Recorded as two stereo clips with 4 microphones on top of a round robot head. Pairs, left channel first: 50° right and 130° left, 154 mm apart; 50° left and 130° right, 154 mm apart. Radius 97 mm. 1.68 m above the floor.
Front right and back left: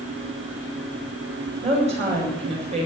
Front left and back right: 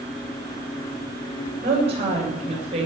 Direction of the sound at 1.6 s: Straight behind.